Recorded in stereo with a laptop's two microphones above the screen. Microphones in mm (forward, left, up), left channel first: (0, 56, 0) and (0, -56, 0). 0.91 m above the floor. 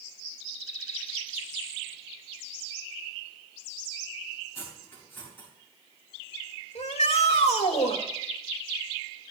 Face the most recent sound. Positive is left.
turn(degrees=80)